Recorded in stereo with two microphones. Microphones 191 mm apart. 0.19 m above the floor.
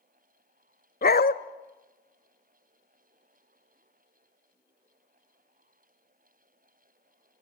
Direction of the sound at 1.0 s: 50° left (ahead or behind).